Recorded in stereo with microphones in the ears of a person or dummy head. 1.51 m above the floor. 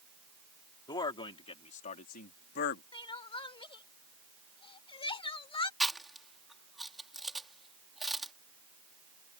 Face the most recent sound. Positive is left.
turn(degrees=0)  # may be behind; listen again after turning